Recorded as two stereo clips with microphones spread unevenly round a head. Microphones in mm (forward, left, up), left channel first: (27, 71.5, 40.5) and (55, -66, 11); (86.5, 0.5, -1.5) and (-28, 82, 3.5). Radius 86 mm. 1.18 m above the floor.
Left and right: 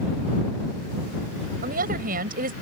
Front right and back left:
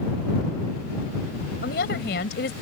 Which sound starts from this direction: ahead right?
A woman speaking, at 1.6 s.